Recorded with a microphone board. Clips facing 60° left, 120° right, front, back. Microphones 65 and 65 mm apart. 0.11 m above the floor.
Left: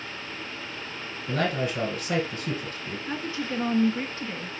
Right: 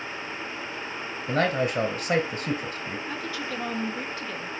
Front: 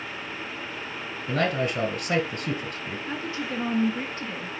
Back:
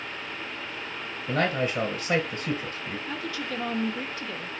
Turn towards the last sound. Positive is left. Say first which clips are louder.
# left 5 dB, front 3 dB
turn(degrees=30)